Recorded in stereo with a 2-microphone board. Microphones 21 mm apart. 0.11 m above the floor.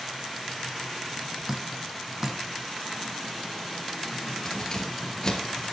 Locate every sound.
1.5 s dripping: 20° right (ahead or behind), 1.0 m
4.5 s keys jangling: 30° left (ahead or behind), 1.6 m